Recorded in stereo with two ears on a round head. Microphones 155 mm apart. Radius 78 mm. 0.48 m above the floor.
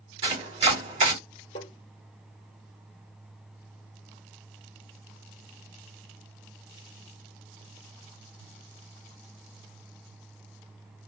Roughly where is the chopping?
Right.